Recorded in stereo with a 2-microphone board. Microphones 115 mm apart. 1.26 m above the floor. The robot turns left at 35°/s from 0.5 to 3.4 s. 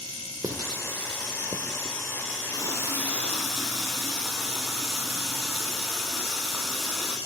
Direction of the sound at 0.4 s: 30° right (ahead or behind).